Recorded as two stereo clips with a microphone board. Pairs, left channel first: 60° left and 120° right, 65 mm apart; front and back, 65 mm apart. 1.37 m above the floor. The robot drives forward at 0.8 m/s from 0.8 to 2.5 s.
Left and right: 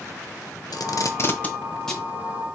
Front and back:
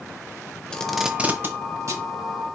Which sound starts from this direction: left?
Tape being pulled, at 0.7 s.